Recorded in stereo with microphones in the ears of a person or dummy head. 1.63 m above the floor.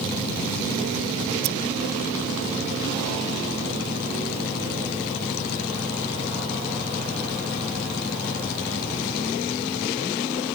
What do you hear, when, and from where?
1.4 s scissors: 65° right (ahead or behind)